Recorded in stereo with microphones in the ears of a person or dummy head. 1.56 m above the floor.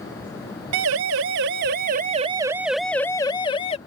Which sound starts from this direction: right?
A siren, at 0.7 s.